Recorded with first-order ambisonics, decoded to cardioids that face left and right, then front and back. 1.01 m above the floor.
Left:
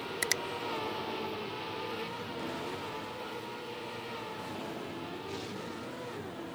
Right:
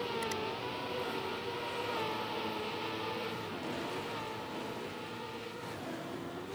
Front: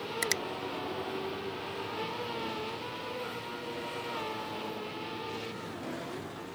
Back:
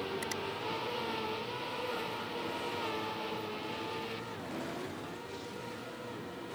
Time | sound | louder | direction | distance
0.2 | a finger snap | left 5 dB, front 6 dB | 50° left | ?